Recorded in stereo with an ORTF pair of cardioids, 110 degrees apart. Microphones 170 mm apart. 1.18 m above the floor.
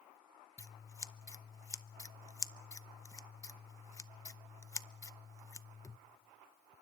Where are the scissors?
20° left, 0.6 m.